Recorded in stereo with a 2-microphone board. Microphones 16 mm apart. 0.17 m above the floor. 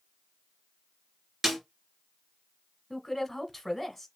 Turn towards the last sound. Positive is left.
turn(degrees=5)  # may be behind; listen again after turning